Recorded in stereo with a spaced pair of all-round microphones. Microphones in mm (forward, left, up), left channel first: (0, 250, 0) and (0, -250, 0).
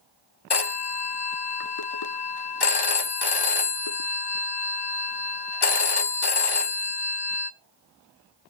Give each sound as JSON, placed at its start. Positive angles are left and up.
{"t": 0.5, "sound": "a phone ringing", "side_deg": 50, "distance_m": 0.8}